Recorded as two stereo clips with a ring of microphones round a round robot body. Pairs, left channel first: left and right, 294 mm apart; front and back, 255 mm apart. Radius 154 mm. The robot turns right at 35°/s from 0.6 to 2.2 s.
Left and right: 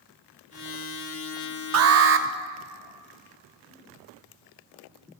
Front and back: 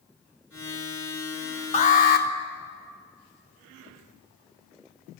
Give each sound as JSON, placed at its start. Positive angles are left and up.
{"t": 1.7, "sound": "an alarm", "azimuth_deg": -65, "distance_m": 0.8}